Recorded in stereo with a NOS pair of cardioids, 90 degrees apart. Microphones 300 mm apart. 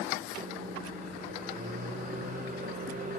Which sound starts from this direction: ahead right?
A microwave, at 0.4 s.